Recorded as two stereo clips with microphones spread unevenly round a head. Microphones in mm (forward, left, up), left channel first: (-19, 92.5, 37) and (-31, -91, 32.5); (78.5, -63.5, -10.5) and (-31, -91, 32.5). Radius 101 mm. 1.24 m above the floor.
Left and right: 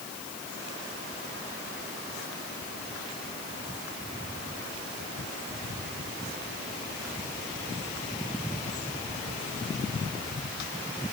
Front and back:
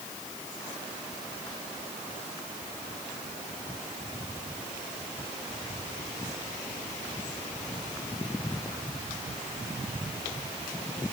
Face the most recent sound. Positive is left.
No sound to turn to.